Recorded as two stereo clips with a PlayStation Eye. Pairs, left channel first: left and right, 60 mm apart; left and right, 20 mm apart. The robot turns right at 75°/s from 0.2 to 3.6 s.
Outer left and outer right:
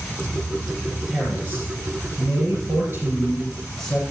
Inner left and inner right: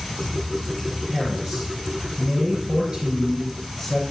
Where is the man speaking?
Straight behind, 4 m; by 4.0 s 5° left, 4 m.